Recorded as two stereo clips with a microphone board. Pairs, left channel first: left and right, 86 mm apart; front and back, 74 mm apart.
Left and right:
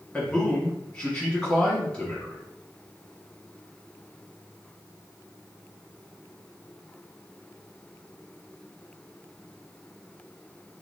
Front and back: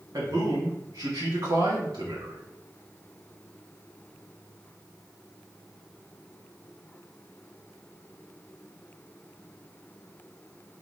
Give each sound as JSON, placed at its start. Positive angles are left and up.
{"t": 0.1, "sound": "a man speaking", "azimuth_deg": 170, "distance_m": 1.7}